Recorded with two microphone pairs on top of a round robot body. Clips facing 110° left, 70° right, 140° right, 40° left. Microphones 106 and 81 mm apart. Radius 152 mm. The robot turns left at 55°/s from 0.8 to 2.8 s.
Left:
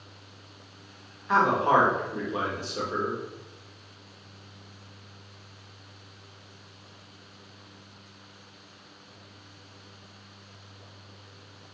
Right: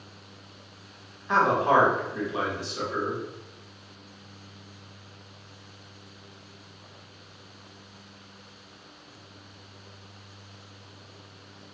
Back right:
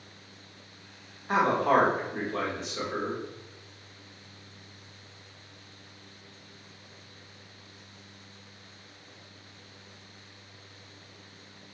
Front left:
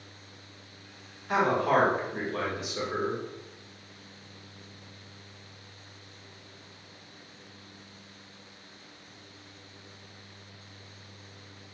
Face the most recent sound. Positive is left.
turn(degrees=120)